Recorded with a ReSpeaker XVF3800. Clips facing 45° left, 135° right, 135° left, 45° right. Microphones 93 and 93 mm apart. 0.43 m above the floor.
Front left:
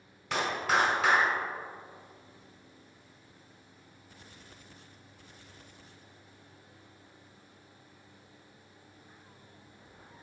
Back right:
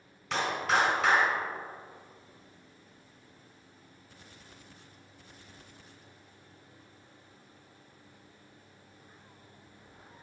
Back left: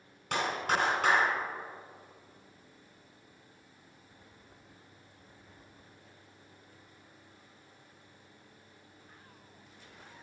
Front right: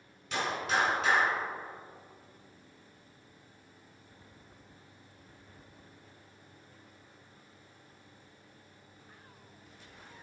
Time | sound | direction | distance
0.3 | a clap | 125° left | 2 m